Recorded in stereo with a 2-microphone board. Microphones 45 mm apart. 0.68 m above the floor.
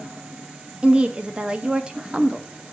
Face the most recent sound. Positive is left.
turn(degrees=-25)  # may be behind; listen again after turning